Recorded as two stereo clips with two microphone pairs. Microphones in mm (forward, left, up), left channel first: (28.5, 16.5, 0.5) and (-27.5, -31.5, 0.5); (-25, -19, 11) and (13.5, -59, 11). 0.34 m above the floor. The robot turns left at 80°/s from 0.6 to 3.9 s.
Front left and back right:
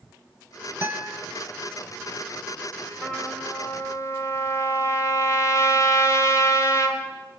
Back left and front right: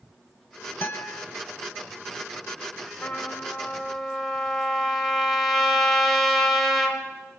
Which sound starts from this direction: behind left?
A trumpet, at 3.0 s.